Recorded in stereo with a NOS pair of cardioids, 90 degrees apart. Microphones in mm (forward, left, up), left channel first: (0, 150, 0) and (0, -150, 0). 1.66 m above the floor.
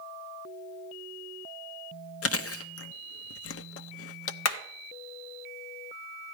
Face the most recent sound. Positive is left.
turn(degrees=60)